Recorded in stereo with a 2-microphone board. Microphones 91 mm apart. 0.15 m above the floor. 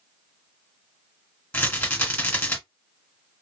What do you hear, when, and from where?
1.5 s a rattle: 15° left (ahead or behind), 2.0 m